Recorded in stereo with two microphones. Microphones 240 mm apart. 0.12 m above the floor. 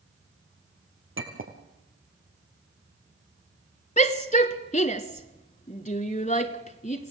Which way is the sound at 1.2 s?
60° right (ahead or behind).